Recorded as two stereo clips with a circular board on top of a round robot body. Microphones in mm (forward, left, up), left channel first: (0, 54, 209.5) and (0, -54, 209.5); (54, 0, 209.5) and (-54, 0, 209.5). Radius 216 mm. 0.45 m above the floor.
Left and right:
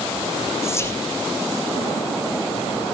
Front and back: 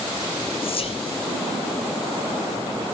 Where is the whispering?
25° left, 3.5 m.